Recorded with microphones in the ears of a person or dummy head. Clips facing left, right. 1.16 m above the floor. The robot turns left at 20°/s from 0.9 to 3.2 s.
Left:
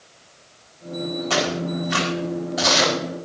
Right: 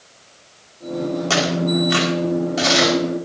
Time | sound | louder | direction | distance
1.3 | tearing paper | right 4 dB | 65° right (ahead or behind) | 5 m